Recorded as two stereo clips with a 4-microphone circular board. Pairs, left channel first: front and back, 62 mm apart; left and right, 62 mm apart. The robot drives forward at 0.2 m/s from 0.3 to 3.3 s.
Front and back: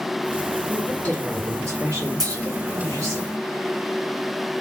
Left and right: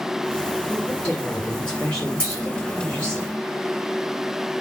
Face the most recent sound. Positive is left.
turn(degrees=165)